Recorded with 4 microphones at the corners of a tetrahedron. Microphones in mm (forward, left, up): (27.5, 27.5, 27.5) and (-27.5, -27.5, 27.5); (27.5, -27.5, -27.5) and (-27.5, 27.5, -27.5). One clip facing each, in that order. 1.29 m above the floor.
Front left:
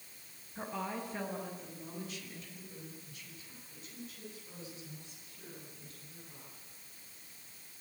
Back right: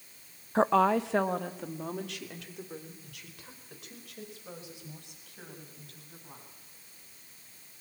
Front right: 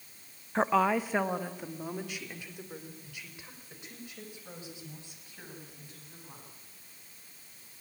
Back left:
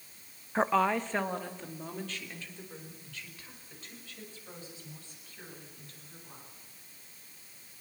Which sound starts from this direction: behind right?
A woman speaking, at 0.6 s.